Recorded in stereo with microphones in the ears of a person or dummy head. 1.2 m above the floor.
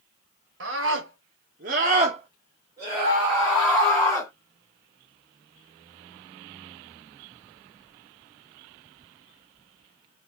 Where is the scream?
60° right (ahead or behind), 1.3 m; by 4.3 s 15° left (ahead or behind), 1.4 m.